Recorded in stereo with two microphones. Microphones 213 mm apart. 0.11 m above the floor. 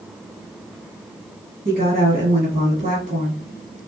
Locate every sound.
1.6 s a woman speaking: 45° right (ahead or behind), 2 m